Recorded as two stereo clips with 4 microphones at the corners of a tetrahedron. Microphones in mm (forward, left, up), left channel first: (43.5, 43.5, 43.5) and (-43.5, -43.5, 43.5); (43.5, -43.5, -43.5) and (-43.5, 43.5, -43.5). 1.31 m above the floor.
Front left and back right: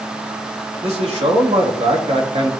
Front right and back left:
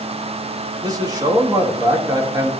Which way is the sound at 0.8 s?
165° right.